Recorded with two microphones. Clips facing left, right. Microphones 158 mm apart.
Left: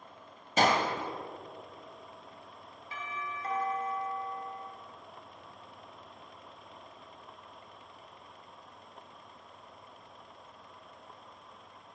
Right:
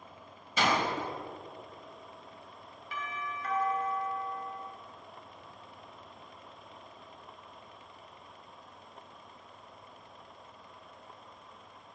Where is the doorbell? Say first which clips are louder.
Right 1 dB; 30° left (ahead or behind), 1.9 m.